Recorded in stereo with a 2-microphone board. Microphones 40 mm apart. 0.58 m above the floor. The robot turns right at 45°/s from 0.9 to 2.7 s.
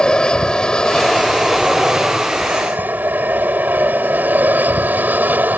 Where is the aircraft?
155° left; by 5.6 s 125° right.